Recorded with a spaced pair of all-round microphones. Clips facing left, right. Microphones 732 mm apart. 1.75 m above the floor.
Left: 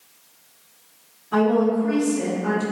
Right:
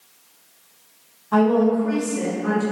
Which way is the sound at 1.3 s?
30° right (ahead or behind).